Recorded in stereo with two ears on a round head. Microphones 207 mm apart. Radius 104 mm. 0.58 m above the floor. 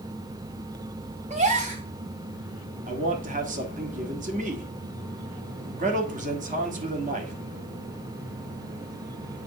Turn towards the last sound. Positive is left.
turn(degrees=-35)  # may be behind; listen again after turning